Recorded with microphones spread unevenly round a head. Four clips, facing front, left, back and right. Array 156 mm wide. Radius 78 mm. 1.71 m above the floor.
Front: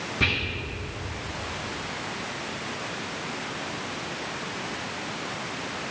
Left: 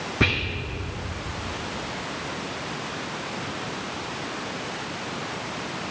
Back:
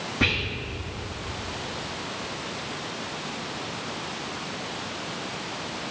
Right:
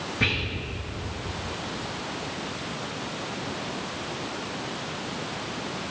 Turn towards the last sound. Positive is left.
turn(degrees=105)